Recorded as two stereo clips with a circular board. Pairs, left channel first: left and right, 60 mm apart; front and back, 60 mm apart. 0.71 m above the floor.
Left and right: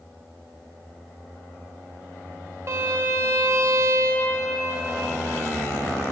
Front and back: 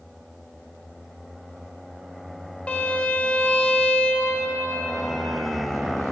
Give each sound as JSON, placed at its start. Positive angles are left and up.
{"t": 2.7, "sound": "a violin", "azimuth_deg": -65, "distance_m": 0.7}